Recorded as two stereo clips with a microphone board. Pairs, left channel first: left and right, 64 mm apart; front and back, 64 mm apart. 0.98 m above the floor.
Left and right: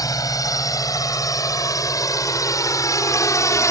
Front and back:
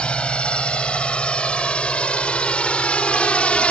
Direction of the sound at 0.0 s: 75° left.